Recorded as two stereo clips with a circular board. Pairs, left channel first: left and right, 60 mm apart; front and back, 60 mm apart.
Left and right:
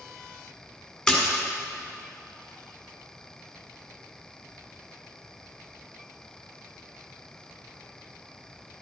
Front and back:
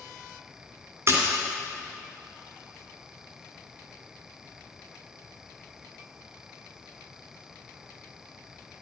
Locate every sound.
1.1 s a splash: 170° left, 2 m